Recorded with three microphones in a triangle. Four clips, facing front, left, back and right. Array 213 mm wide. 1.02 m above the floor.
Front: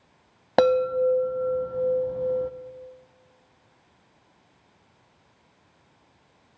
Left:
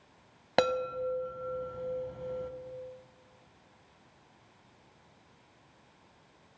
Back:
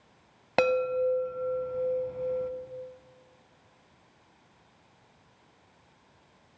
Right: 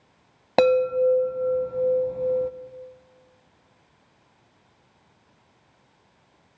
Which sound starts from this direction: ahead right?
A chime, at 0.6 s.